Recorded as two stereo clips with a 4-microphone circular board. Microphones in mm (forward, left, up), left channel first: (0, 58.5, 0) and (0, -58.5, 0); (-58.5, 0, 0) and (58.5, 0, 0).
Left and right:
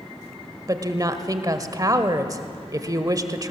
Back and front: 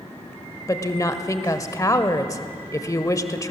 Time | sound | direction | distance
0.7 | a woman speaking | 130° right | 1.2 m